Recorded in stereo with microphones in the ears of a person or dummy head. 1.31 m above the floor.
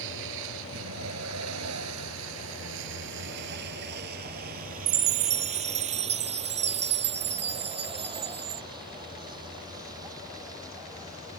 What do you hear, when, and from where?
0.0 s a vehicle: 75° right (ahead or behind); by 11.4 s 15° right (ahead or behind)
4.9 s a chime: 30° right (ahead or behind)